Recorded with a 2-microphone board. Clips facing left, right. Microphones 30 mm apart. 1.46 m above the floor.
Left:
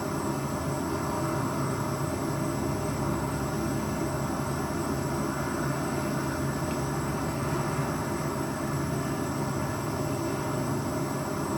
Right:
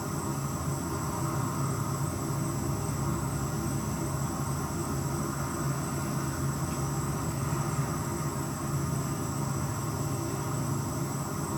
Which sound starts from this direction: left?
An insect, at 0.0 s.